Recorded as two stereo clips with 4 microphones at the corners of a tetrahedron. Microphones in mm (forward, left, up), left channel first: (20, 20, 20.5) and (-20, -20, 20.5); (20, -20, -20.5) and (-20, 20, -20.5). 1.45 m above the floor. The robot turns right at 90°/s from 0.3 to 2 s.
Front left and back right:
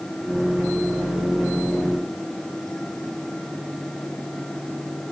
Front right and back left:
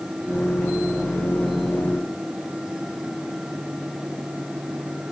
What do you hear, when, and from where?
Only background noise.